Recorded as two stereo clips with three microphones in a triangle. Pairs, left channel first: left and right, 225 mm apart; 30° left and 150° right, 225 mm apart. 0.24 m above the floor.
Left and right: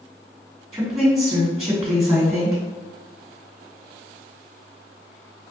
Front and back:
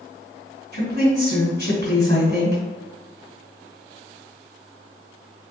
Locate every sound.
0.7 s a woman speaking: 15° right, 2.0 m